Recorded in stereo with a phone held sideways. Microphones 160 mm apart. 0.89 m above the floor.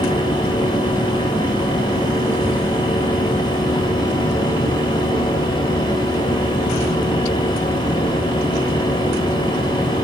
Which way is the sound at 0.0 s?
30° left (ahead or behind).